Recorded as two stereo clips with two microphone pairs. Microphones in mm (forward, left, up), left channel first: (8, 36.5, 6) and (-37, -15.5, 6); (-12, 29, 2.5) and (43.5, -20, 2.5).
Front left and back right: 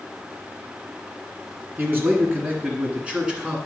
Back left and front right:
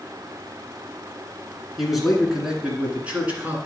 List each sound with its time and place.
1.8 s a man speaking: 130° right, 1.8 m; by 3.6 s 70° right, 1.7 m